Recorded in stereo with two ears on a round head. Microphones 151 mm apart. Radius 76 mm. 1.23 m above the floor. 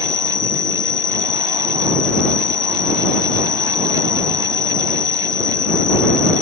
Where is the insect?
25° left (ahead or behind).